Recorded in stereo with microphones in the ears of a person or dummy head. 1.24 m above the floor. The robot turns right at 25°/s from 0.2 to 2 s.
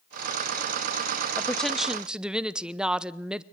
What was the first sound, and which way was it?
A woman speaking, 10° left (ahead or behind).